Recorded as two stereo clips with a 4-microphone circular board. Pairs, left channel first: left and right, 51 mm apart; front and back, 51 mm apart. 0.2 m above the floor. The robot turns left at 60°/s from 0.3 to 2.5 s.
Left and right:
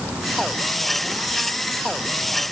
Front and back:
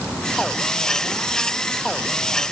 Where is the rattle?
I don't hear a rattle.